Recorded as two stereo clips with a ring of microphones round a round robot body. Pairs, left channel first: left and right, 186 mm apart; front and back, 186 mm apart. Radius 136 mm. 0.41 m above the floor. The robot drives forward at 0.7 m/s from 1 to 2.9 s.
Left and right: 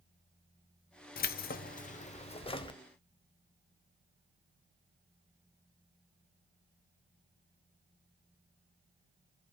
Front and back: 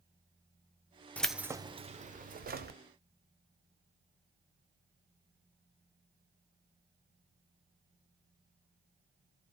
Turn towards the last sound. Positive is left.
turn(degrees=155)